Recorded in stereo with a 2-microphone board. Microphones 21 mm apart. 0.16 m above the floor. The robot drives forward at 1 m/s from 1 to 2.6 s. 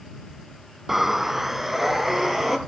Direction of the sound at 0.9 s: 15° right (ahead or behind).